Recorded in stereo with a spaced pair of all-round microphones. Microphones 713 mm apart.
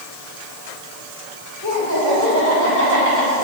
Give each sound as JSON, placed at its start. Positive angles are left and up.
{"t": 1.6, "sound": "laughter", "side_deg": 25, "distance_m": 5.5}